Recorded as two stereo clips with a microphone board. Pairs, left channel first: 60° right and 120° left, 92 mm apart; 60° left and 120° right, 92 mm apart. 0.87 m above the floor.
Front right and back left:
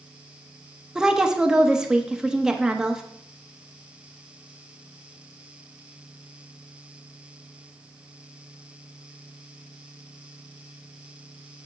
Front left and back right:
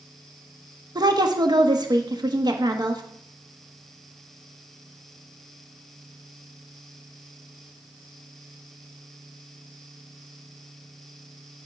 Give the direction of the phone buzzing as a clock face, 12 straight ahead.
I don't hear a phone buzzing.